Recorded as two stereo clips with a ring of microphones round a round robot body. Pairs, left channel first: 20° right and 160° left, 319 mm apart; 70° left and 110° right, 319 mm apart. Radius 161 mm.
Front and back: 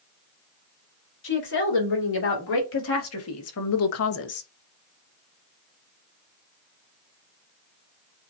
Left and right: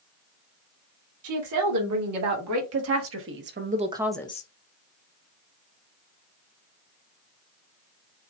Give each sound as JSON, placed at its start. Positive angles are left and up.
{"t": 1.2, "sound": "a woman speaking", "azimuth_deg": -75, "distance_m": 3.0}